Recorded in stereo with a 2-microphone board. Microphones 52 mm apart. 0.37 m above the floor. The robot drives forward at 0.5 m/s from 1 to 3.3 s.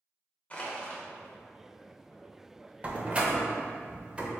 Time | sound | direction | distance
0.5 | crushing | 30° left (ahead or behind) | 0.9 m
2.8 | a door slam | 25° right (ahead or behind) | 0.6 m